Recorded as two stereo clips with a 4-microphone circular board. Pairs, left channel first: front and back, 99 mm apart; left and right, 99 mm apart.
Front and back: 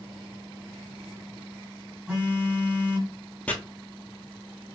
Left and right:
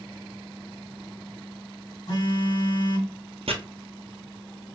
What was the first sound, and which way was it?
A phone buzzing, 105° left.